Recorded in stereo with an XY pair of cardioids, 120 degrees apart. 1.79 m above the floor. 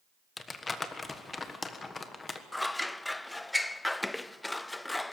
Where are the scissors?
10° left, 0.5 m.